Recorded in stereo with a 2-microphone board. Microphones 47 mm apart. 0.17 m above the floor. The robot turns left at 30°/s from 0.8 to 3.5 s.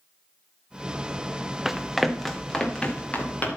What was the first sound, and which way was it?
Running footsteps, 5° right (ahead or behind).